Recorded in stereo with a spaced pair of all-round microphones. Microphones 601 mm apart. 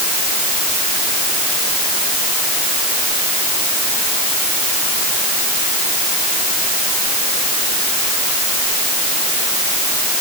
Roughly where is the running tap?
No running tap in this recording.